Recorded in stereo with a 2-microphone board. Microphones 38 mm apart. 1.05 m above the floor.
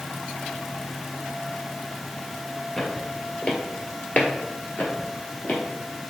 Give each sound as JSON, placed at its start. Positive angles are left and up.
{"t": 2.8, "sound": "footsteps", "side_deg": 15, "distance_m": 1.4}